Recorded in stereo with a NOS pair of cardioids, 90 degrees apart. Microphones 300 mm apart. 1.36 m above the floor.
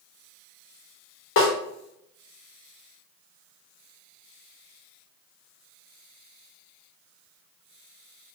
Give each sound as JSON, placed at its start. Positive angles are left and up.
{"t": 1.4, "sound": "a snare drum", "azimuth_deg": 40, "distance_m": 0.9}